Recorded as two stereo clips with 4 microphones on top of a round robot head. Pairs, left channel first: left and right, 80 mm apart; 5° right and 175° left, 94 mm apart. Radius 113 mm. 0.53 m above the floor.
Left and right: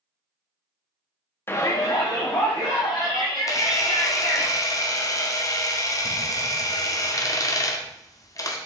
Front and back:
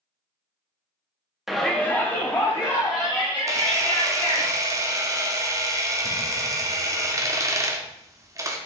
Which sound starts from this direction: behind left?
A camera shutter, at 3.5 s.